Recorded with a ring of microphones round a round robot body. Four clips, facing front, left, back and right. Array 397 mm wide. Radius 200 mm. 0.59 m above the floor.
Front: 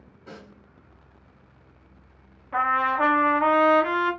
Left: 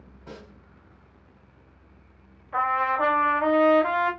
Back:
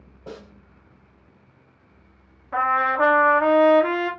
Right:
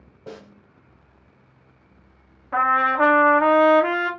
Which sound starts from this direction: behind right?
A snare drum, at 0.3 s.